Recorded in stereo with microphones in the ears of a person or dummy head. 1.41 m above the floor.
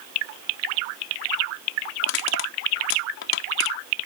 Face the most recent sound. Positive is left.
turn(degrees=75)  # may be behind; listen again after turning